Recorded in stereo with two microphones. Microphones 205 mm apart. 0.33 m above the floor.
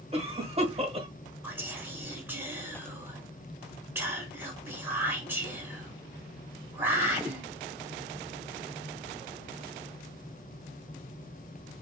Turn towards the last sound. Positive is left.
turn(degrees=-10)  # may be behind; listen again after turning